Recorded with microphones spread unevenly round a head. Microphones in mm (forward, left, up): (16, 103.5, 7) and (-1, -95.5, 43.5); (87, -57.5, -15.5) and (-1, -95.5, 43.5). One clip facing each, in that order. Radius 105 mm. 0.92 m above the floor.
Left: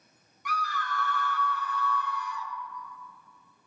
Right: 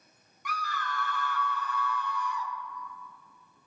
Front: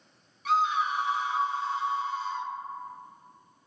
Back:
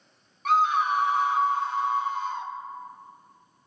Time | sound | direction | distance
0.5 | a scream | 110° right | 1.2 m